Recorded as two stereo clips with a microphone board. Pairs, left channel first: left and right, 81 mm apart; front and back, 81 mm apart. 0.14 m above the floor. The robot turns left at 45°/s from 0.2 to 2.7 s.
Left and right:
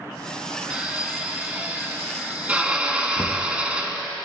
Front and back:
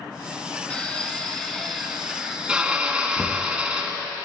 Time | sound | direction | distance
0.7 | a drill | 40° right | 1.6 m
3.2 | knocking | 70° left | 1.5 m